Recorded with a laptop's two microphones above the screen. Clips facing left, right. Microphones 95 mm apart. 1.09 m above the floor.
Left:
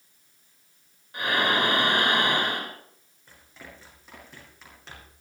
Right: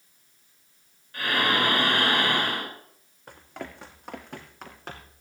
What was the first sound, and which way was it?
Breathing, 20° left (ahead or behind).